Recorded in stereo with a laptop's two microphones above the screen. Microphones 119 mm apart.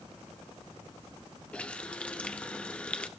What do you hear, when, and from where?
1.5 s a running tap: 10° left (ahead or behind), 0.6 m